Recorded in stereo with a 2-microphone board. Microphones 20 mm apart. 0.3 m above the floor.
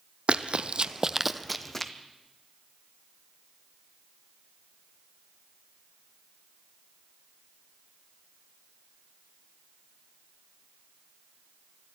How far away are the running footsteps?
About 0.7 m.